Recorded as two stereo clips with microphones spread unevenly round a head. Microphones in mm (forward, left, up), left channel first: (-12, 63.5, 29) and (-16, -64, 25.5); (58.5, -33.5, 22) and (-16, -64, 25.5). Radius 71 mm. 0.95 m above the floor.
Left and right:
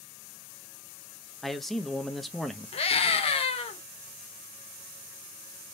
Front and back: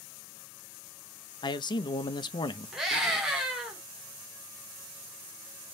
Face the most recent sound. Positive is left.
turn(degrees=120)